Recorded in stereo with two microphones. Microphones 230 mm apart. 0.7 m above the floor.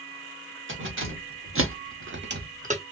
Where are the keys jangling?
60° right (ahead or behind), 1.1 m; by 2.8 s 25° right (ahead or behind), 0.6 m.